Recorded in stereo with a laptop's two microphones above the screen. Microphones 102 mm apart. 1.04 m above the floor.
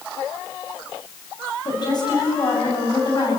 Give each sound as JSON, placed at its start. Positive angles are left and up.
{"t": 1.6, "sound": "a woman speaking", "side_deg": 45, "distance_m": 7.5}